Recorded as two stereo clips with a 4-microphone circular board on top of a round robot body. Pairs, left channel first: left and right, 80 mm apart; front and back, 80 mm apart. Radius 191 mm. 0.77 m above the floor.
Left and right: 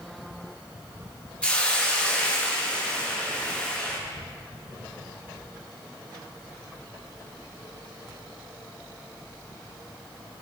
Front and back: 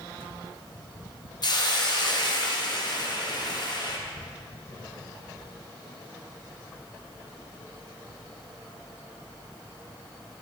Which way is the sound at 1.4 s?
15° left.